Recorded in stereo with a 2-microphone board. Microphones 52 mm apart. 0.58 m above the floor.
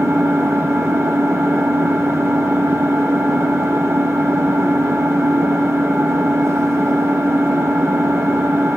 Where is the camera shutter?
I don't hear a camera shutter.